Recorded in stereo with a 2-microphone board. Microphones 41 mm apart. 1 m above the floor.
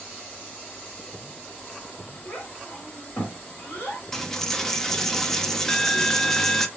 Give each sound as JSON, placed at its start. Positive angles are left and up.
{"t": 2.2, "sound": "a child speaking", "side_deg": 35, "distance_m": 2.0}
{"t": 4.1, "sound": "a dropped coin", "side_deg": 5, "distance_m": 0.6}